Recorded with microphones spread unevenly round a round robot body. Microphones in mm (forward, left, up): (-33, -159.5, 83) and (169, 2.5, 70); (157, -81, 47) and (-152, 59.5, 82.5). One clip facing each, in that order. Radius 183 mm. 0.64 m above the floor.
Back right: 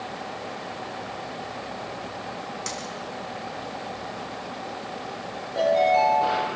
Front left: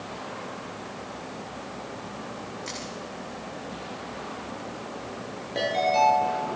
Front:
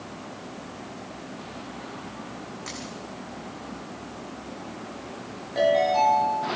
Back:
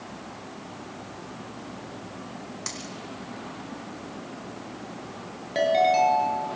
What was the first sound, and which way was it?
A dropped coin, 165° right.